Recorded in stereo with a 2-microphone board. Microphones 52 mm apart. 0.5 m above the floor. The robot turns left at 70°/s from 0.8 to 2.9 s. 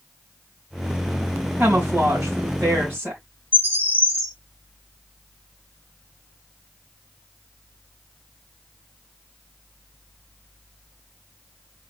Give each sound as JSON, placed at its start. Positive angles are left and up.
{"t": 1.6, "sound": "a woman speaking", "azimuth_deg": -30, "distance_m": 2.5}
{"t": 3.5, "sound": "a bird", "side_deg": -45, "distance_m": 1.6}